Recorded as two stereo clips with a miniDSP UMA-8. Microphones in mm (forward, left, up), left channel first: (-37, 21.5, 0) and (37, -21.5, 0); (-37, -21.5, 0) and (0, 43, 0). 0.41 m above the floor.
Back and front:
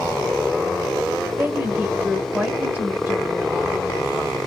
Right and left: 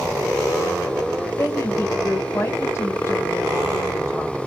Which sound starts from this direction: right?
A woman speaking, at 1.4 s.